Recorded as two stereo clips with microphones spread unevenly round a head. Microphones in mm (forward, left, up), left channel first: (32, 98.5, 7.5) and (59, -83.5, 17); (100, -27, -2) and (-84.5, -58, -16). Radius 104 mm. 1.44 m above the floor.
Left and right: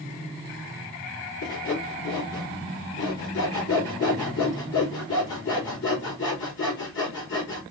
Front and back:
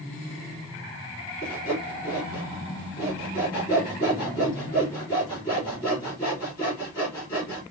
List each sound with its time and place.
1.4 s sawing: 85° left, 3.5 m